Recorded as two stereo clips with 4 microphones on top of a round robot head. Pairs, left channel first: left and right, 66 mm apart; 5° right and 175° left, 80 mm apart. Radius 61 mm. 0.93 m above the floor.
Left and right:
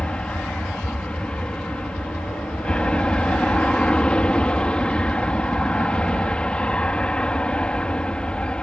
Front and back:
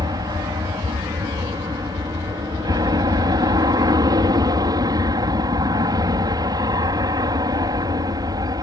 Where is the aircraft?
160° left.